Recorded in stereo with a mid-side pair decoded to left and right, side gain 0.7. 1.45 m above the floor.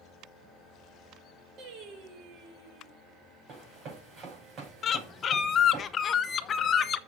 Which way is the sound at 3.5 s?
45° right.